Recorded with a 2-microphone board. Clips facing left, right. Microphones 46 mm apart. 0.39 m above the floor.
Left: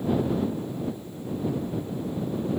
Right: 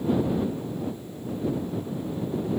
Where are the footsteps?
I don't hear footsteps.